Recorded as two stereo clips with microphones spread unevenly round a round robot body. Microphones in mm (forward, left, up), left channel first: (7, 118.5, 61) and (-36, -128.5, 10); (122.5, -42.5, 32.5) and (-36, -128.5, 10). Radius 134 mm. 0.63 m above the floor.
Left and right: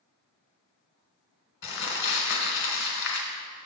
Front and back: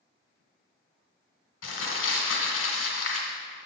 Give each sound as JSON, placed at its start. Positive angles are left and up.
{"t": 1.6, "sound": "crumpling", "azimuth_deg": 35, "distance_m": 1.5}